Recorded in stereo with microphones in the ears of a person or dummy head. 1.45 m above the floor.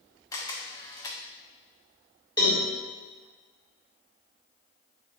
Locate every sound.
0.3 s a camera shutter: 15° left (ahead or behind), 0.7 m
2.4 s a cowbell: 25° left (ahead or behind), 2 m